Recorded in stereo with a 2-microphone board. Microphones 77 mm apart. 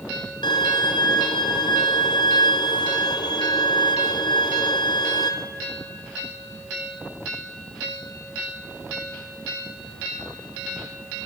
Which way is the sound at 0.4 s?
85° left.